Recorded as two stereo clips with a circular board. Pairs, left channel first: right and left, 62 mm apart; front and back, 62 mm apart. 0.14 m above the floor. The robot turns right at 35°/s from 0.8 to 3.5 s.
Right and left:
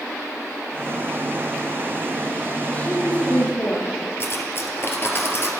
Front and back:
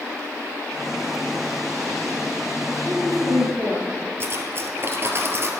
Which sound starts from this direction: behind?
A woman speaking, at 2.7 s.